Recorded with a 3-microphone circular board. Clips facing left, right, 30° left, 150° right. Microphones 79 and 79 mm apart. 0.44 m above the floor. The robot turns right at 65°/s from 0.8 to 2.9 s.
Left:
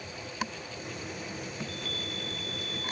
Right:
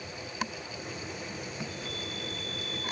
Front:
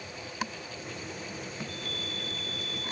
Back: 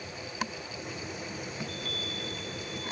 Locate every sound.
1.6 s a chime: 160° right, 1.6 m; by 2.9 s 75° right, 1.6 m